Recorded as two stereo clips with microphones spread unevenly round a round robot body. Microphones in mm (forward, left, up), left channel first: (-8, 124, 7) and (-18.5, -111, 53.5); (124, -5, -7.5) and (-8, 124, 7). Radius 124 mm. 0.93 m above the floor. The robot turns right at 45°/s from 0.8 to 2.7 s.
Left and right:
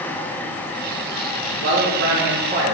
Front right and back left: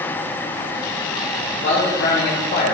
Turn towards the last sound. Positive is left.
turn(degrees=-20)